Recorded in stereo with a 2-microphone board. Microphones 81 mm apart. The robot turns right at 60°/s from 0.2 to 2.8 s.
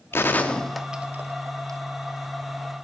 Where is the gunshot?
30° left (ahead or behind), 0.5 m; by 1.8 s 50° right (ahead or behind), 0.5 m.